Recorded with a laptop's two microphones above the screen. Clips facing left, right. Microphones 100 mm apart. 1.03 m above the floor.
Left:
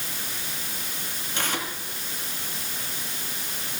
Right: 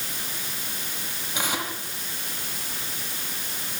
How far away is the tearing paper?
About 9 m.